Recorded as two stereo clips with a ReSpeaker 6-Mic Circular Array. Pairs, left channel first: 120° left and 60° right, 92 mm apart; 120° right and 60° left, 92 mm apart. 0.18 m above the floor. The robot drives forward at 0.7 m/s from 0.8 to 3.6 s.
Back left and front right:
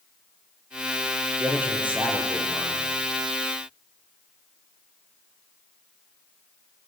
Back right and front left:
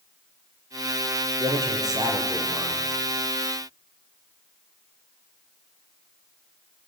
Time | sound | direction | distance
1.4 | a man speaking | 15° left | 4.5 m